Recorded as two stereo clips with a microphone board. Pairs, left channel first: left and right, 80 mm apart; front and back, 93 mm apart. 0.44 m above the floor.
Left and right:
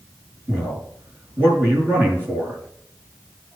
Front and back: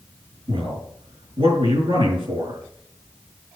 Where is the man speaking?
155° right, 6 m.